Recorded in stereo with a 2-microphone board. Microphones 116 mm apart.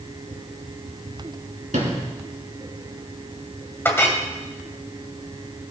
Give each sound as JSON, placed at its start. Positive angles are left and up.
{"t": 1.7, "sound": "a sliding door", "side_deg": -80, "distance_m": 4.0}
{"t": 3.9, "sound": "a clink", "side_deg": 20, "distance_m": 2.0}